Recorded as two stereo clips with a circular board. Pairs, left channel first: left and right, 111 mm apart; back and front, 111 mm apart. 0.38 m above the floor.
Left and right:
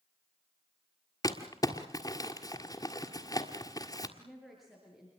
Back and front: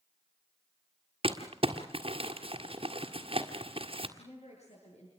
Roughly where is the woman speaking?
Behind.